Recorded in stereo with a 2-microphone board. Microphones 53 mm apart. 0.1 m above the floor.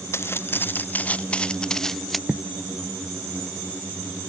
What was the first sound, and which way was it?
Footsteps, 55° left (ahead or behind).